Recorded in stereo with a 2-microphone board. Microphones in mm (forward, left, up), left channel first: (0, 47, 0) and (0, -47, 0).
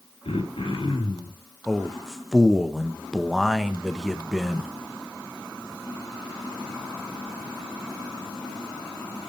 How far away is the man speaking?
About 0.7 m.